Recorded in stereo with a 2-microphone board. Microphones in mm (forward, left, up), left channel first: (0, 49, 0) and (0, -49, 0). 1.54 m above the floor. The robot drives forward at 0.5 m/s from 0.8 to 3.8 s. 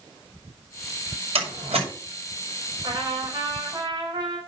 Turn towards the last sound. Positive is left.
turn(degrees=-45)  # may be behind; listen again after turning